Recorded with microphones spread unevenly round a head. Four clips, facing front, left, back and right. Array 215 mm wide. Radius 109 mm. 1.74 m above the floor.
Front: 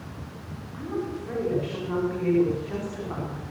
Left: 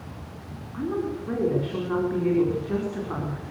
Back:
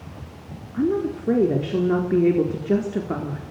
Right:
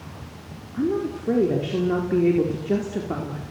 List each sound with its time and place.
0.7 s a woman speaking: 155° right, 4.5 m